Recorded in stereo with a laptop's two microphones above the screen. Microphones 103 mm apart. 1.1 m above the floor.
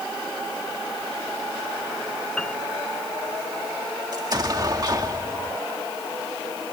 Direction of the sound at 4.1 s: 40° right (ahead or behind).